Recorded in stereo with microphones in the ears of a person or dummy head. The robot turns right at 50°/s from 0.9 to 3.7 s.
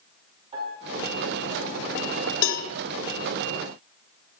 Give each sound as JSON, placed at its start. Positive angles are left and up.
{"t": 0.5, "sound": "a piano", "azimuth_deg": -140, "distance_m": 2.5}
{"t": 2.4, "sound": "a cowbell", "side_deg": 60, "distance_m": 0.7}